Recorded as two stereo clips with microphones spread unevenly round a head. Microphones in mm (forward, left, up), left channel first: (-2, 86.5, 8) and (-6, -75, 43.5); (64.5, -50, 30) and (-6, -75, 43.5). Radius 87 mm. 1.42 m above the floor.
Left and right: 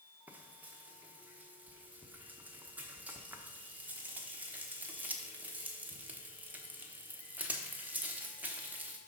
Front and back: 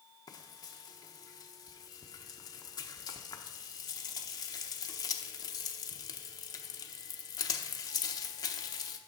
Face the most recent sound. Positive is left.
turn(degrees=-15)